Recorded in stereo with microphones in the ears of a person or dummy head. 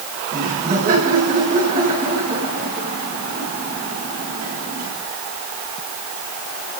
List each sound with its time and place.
0.3 s laughter: 50° right (ahead or behind), 10 m